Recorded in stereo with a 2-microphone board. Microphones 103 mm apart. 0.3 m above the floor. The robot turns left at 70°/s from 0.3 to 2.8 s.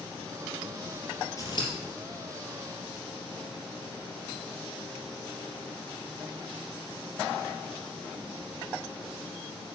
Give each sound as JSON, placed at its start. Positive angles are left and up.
{"t": 1.4, "sound": "scissors", "side_deg": 30, "distance_m": 3.0}